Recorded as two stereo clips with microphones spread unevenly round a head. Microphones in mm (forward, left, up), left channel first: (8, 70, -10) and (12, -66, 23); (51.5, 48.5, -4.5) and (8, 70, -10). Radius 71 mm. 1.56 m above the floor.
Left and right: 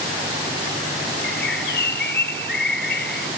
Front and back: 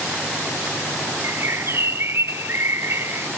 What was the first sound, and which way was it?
A bird, 120° left.